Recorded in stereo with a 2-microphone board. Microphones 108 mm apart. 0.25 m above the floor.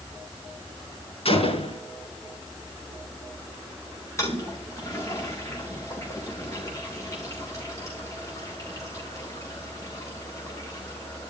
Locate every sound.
1.2 s a gunshot: 60° left (ahead or behind), 3.5 m
4.2 s a toilet flushing: 25° left (ahead or behind), 4.5 m